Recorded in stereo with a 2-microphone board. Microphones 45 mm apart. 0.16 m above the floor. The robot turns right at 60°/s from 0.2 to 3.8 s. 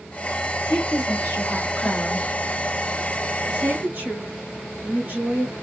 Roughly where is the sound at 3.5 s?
Right.